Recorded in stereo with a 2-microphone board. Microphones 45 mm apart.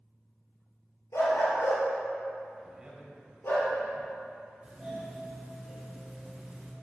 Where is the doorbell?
15° right (ahead or behind), 2.5 m.